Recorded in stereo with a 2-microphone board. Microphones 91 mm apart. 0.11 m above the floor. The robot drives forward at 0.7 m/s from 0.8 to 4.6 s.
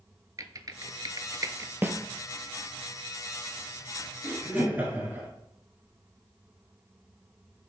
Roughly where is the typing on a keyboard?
Right.